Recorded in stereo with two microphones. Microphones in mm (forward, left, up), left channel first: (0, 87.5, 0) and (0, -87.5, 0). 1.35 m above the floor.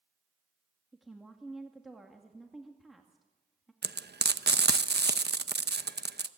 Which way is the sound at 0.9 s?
Centre (ahead or behind).